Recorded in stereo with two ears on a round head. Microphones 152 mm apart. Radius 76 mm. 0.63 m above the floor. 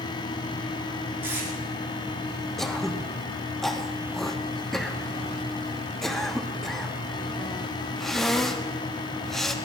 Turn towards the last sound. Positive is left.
turn(degrees=0)  # may be behind; listen again after turning